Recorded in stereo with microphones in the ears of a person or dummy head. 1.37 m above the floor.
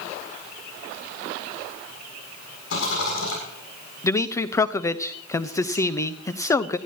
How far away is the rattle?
About 7.5 m.